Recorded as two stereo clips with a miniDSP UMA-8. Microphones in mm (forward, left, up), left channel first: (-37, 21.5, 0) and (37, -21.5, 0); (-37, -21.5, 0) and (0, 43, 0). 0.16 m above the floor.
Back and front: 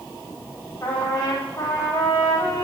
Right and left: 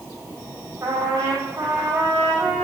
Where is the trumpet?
110° left, 6 m.